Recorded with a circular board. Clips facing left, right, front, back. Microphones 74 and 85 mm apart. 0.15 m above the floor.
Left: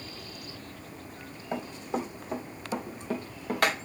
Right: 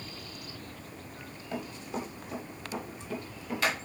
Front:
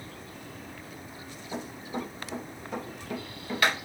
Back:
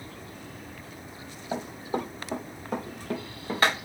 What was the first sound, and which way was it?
Running footsteps, 145° left.